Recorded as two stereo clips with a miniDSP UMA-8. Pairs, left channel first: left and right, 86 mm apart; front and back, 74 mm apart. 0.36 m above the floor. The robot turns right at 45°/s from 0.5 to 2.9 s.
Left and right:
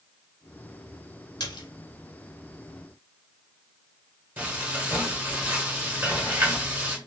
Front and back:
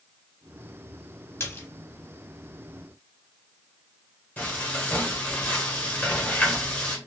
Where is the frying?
45° right, 1.2 m.